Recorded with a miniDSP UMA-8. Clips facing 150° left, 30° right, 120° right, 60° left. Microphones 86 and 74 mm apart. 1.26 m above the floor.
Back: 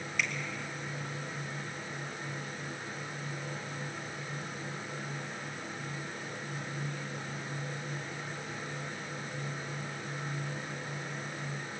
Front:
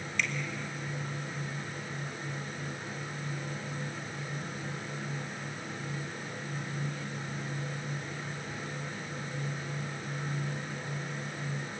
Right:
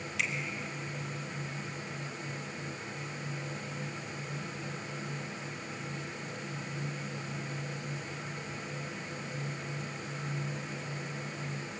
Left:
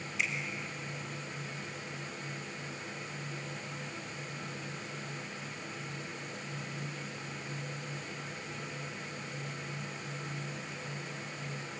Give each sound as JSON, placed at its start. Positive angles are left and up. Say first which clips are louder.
{"t": 0.2, "sound": "a finger snap", "louder": "front 1 dB, even", "azimuth_deg": -125, "distance_m": 3.0}